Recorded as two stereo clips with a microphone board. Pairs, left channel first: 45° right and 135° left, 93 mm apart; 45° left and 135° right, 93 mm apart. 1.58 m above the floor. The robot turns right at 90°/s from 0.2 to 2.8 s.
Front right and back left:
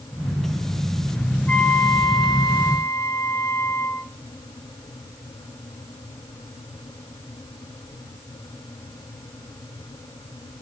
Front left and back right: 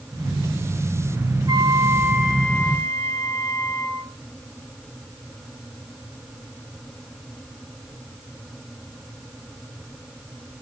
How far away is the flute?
About 1.3 m.